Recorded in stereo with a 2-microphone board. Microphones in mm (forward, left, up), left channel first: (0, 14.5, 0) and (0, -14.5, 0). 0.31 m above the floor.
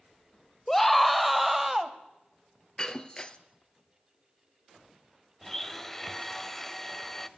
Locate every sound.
0.7 s a scream: 15° left (ahead or behind), 0.9 m; by 1.9 s 10° right (ahead or behind), 1.4 m
2.8 s breaking glass: 25° left (ahead or behind), 1.1 m
5.4 s a blender: 15° left (ahead or behind), 0.7 m